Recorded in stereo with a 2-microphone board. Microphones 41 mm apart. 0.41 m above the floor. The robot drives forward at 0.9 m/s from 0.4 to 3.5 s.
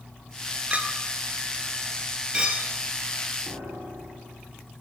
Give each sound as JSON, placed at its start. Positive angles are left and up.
{"t": 0.7, "sound": "a clink", "side_deg": -30, "distance_m": 4.0}
{"t": 3.5, "sound": "a piano", "side_deg": -85, "distance_m": 8.5}